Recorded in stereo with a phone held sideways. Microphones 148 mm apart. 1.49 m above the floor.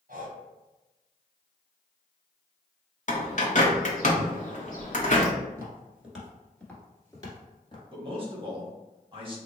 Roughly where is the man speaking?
Right.